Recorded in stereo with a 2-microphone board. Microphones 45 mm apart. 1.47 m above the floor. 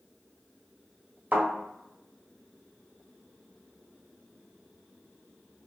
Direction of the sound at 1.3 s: 35° right (ahead or behind).